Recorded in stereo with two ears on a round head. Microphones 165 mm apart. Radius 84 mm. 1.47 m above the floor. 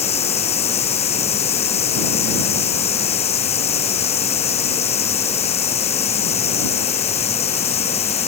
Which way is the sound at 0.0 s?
35° left (ahead or behind).